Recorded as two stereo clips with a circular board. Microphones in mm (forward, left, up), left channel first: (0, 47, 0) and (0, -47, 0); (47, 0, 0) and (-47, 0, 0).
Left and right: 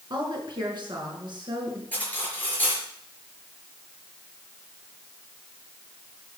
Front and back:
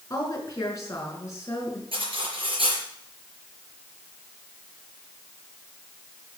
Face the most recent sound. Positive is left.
turn(degrees=165)